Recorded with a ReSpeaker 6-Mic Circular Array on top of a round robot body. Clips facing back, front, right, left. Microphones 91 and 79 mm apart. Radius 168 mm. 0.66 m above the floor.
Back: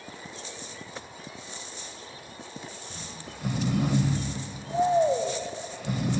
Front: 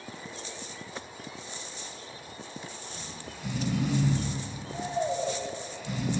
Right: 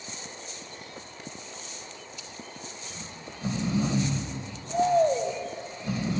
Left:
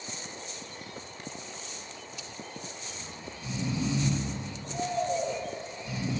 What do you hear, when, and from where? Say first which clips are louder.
2.9 s snoring: even, even; 135° right, 2.5 m